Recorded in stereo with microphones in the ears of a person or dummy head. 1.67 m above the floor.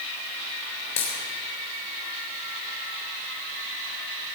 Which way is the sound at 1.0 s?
35° left (ahead or behind).